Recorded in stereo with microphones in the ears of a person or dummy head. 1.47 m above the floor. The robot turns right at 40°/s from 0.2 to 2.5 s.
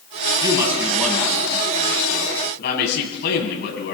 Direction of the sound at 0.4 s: 25° right (ahead or behind).